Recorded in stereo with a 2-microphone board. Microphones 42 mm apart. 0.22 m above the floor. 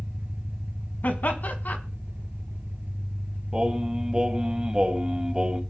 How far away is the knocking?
I don't hear knocking.